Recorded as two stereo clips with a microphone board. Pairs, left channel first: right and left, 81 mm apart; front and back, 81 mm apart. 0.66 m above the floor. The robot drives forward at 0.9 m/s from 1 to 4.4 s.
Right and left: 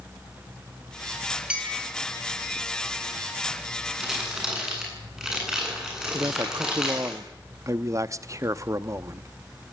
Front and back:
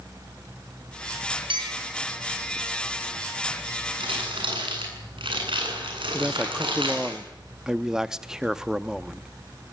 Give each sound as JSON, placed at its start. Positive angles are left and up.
{"t": 1.5, "sound": "a clink", "azimuth_deg": 165, "distance_m": 4.5}
{"t": 4.0, "sound": "crumpling", "azimuth_deg": 175, "distance_m": 8.5}
{"t": 6.1, "sound": "a man speaking", "azimuth_deg": 100, "distance_m": 0.6}